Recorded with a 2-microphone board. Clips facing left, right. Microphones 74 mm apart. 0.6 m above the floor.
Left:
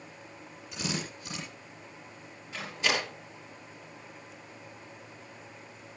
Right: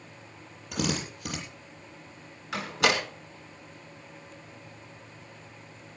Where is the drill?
65° right (ahead or behind), 8 m.